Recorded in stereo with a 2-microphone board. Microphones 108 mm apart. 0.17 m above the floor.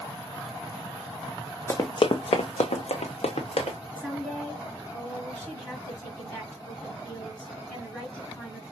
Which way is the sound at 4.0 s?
10° left (ahead or behind).